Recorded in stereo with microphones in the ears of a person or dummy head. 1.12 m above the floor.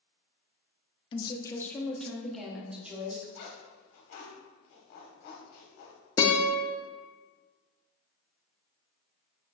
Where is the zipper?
50° left (ahead or behind), 0.9 m.